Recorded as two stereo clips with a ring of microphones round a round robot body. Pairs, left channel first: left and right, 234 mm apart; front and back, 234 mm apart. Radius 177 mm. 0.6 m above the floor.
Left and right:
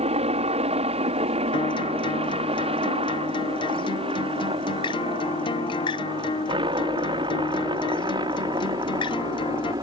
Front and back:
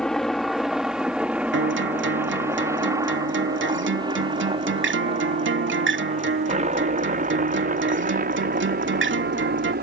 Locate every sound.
0.0 s a helicopter: 85° right; by 9.8 s 160° right
1.5 s a guitar: 160° left